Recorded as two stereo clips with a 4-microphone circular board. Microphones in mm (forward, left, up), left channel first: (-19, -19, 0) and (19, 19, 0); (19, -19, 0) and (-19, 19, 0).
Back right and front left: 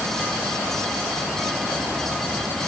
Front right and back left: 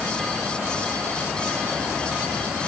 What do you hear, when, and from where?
Only background noise.